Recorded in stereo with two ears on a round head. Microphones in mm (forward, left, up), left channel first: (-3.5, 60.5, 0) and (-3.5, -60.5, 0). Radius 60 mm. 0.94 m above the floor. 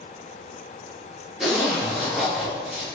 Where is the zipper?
5° right (ahead or behind), 1.3 m.